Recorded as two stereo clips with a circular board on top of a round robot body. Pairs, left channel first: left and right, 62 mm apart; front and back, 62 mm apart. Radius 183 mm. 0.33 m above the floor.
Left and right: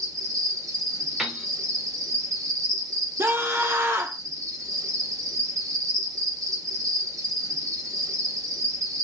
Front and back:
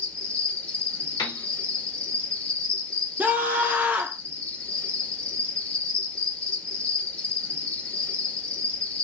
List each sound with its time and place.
0.0 s an insect: 65° right, 0.9 m
1.2 s a piano: 5° right, 0.7 m
3.2 s a scream: 125° right, 1.1 m